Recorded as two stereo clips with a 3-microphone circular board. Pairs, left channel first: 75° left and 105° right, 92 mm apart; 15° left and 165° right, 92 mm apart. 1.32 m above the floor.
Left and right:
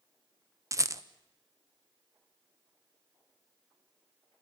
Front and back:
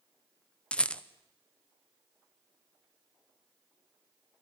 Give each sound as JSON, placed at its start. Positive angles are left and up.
{"t": 0.7, "sound": "a rattle", "azimuth_deg": -60, "distance_m": 0.7}